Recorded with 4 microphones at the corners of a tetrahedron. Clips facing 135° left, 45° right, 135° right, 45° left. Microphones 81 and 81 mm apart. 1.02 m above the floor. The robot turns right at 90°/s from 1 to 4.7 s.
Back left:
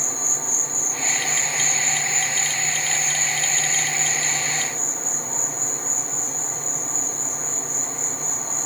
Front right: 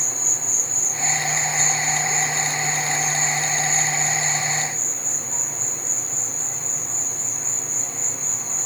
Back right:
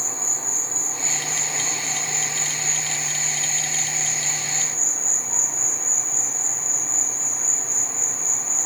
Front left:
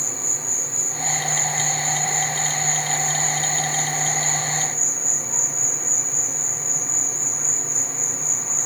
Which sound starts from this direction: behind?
An insect, at 0.0 s.